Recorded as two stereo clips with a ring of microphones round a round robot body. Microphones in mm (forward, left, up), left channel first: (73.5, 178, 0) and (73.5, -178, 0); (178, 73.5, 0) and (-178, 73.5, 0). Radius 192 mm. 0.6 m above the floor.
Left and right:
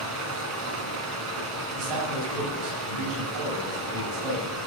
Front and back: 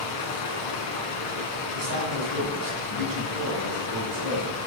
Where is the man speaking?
120° right, 4 m.